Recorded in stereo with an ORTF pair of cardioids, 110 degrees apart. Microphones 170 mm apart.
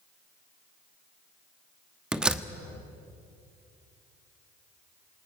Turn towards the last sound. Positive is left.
turn(degrees=-5)